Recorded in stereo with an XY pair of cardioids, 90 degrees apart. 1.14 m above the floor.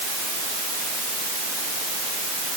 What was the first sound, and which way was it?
Only background noise.